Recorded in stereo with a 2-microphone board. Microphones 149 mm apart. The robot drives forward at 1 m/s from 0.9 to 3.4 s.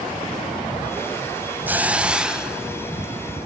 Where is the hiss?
10° right (ahead or behind), 0.5 m; by 3.1 s 5° right (ahead or behind), 2.0 m.